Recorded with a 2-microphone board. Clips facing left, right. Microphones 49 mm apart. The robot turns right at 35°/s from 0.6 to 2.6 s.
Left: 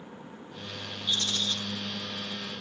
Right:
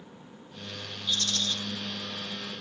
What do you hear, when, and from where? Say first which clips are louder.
1.1 s a rattle: even; 25° left (ahead or behind), 1.3 m; by 1.6 s 5° left (ahead or behind), 1.3 m